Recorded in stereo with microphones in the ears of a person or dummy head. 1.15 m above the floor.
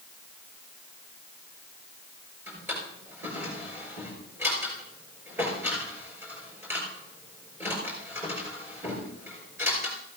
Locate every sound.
2.5 s a drawer: 10° right (ahead or behind), 5.5 m